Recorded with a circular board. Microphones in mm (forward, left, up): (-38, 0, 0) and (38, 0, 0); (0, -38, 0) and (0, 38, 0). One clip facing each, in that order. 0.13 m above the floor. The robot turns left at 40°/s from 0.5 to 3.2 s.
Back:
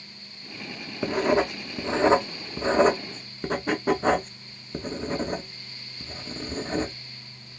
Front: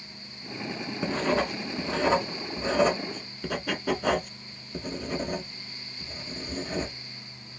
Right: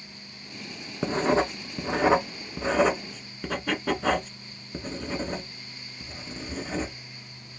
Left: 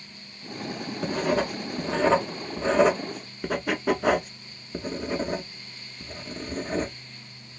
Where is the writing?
110° right, 0.7 m; by 7.0 s 160° left, 0.7 m.